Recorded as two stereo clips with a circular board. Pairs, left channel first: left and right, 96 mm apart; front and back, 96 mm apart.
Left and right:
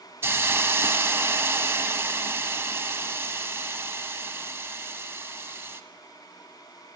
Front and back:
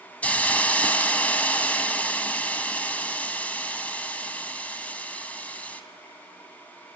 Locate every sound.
0.2 s a hiss: 60° right, 0.8 m